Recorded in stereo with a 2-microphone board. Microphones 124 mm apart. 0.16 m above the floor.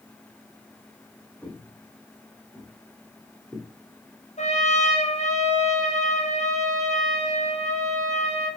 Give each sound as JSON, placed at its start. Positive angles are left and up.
{"t": 1.4, "sound": "footsteps", "side_deg": 10, "distance_m": 5.0}
{"t": 4.4, "sound": "a trumpet", "side_deg": 65, "distance_m": 1.5}